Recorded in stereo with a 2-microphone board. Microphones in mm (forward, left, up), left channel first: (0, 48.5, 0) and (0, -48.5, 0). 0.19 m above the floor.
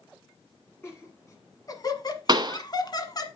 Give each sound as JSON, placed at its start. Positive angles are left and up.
{"t": 0.8, "sound": "laughter", "side_deg": 25, "distance_m": 1.5}
{"t": 2.3, "sound": "a pop", "side_deg": -45, "distance_m": 1.0}